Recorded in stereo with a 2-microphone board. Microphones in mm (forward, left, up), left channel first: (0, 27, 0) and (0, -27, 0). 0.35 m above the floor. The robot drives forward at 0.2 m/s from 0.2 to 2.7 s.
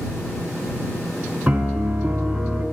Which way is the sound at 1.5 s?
15° right (ahead or behind).